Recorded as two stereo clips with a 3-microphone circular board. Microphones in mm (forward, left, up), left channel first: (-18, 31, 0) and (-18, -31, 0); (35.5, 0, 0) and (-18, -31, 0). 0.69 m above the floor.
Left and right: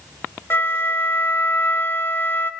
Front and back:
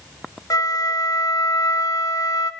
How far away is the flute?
About 0.6 m.